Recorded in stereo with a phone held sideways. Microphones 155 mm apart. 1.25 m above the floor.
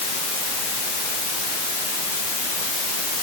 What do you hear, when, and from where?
Only background noise.